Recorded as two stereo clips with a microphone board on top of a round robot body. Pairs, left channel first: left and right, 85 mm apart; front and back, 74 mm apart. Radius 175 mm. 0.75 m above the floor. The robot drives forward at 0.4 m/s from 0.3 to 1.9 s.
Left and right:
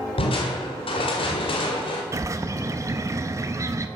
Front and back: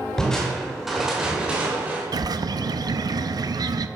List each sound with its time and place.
0.2 s crushing: 85° left, 1.4 m; by 2.0 s 110° left, 1.4 m
2.1 s a bird: 145° right, 0.5 m